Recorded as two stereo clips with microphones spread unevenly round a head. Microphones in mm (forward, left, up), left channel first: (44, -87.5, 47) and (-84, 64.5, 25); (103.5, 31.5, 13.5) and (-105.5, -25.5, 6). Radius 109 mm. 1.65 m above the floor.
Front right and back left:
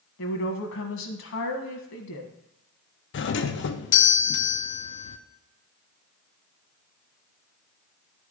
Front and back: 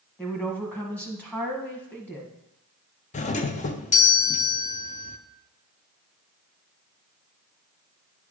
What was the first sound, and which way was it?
A woman speaking, 65° right.